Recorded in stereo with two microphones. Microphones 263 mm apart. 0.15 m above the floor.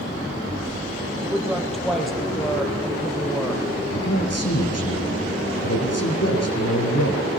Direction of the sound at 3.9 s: 70° left (ahead or behind).